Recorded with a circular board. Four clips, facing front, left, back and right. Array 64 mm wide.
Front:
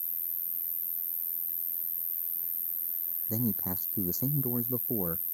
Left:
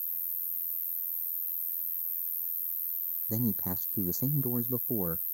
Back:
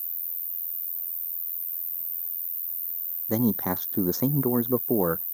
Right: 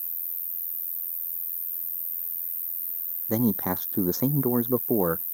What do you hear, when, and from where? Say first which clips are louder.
0.0 s an insect: right 4 dB, front 3 dB; 55° right
3.3 s a man speaking: right 8 dB, back 9 dB; 130° right